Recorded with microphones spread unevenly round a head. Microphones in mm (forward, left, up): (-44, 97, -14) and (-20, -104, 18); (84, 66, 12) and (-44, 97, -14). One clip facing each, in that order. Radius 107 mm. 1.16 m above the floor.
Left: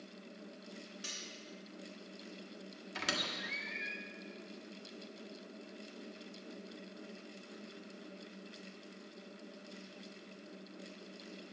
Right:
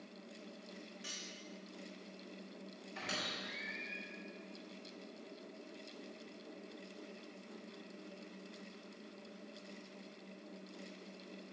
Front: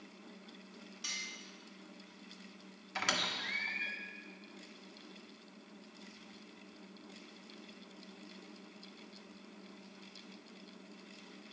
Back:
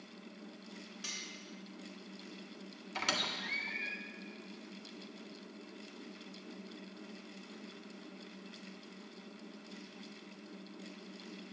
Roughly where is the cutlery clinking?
Behind left.